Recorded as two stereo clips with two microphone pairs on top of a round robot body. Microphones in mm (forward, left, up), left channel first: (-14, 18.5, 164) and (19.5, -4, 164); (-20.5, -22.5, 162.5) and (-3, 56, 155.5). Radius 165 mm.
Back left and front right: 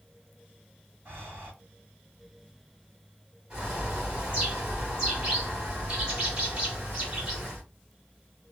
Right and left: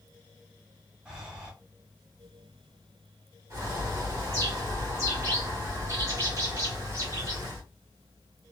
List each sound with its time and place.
1.1 s breathing: 5° right, 2 m
3.5 s a bird: 25° left, 1.8 m